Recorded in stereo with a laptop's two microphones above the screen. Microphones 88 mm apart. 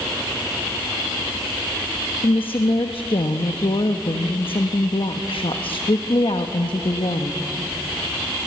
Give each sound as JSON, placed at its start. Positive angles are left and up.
{"t": 2.2, "sound": "a woman speaking", "side_deg": 80, "distance_m": 1.1}